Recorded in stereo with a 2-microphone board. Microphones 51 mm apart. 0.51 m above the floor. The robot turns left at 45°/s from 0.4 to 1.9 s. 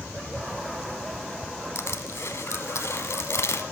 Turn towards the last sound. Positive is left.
turn(degrees=65)  # may be behind; listen again after turning